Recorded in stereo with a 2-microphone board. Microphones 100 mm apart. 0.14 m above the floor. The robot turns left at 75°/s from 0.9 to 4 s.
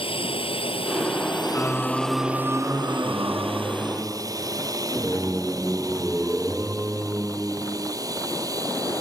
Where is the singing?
35° left; by 8.0 s 150° right.